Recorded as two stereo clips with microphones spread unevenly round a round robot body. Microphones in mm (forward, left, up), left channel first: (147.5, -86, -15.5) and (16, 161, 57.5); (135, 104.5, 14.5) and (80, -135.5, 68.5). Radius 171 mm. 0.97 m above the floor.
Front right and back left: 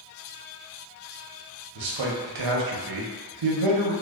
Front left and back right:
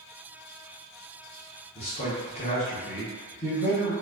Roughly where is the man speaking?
Behind left.